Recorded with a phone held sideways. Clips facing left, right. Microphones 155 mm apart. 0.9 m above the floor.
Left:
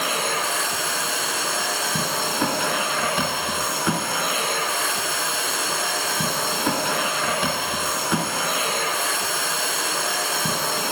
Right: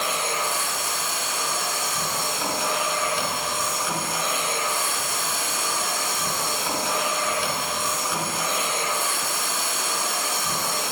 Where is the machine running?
60° left (ahead or behind), 3 m.